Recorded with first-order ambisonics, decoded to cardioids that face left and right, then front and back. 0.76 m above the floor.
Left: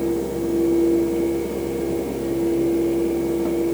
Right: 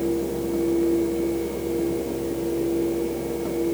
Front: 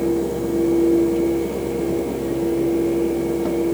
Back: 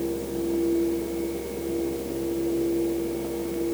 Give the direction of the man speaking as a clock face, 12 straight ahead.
No man speaking in this recording.